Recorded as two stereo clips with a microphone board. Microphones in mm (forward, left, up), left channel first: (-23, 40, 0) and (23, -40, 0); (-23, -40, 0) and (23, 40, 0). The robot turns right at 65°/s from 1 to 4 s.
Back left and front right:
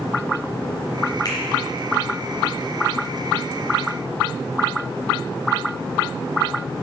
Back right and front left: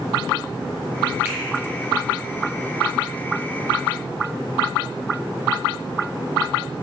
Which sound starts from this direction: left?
A finger snap, at 1.2 s.